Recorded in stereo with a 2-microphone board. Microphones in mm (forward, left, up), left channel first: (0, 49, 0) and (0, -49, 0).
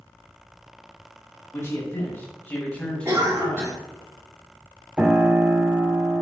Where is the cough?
30° right (ahead or behind), 1.9 m.